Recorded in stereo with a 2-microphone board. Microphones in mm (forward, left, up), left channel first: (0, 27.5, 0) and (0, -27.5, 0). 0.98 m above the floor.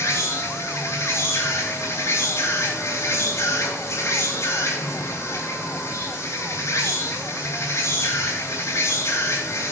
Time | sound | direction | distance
0.0 | an insect | 70° left (ahead or behind) | 3.5 m